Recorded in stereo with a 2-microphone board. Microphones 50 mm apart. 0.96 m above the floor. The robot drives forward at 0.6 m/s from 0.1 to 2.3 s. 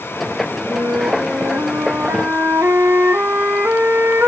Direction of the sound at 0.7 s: 45° right (ahead or behind).